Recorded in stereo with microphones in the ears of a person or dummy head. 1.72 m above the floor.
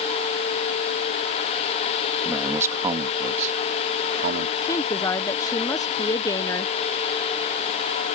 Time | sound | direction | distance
2.2 | a man speaking | centre (ahead or behind) | ?
4.6 | a woman speaking | 20° left (ahead or behind) | ?